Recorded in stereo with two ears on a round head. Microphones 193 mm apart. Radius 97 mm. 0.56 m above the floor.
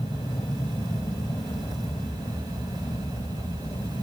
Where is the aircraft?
15° left (ahead or behind).